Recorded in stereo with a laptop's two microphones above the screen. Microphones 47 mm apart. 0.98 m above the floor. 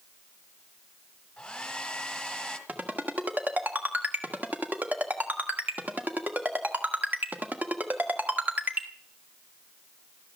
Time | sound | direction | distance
1.4 | a hair dryer | 15° left (ahead or behind) | 1.4 m
2.7 | a ringtone | 35° right (ahead or behind) | 1.5 m